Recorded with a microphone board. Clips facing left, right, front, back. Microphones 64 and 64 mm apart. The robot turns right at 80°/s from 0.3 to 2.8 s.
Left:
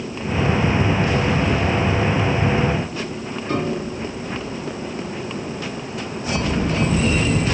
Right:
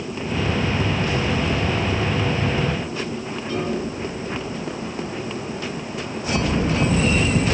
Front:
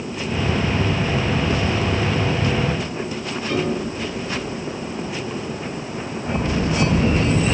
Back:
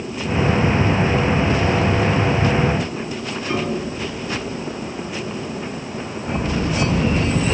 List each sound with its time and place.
3.5 s a piano: 110° left, 1.6 m